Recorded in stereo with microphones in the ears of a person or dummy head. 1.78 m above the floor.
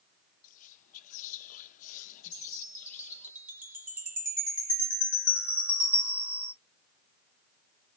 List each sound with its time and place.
0.4 s whispering: 45° left (ahead or behind), 0.7 m
2.3 s a chime: 10° right (ahead or behind), 0.8 m